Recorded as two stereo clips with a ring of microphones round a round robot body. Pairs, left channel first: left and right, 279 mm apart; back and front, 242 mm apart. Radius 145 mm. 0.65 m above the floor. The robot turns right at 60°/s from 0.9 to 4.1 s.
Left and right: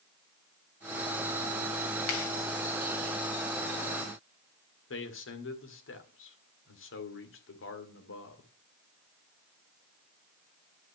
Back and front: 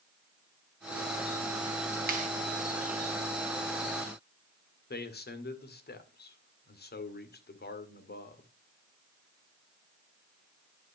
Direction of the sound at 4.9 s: 135° left.